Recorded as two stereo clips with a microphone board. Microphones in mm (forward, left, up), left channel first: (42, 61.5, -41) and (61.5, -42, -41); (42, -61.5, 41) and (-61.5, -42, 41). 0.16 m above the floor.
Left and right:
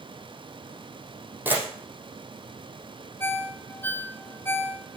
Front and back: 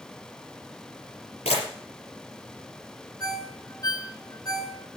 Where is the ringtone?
35° left, 1.8 m.